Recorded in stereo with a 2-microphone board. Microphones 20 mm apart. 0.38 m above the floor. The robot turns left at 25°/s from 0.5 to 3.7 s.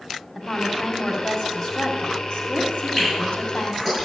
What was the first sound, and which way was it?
A woman speaking, 165° left.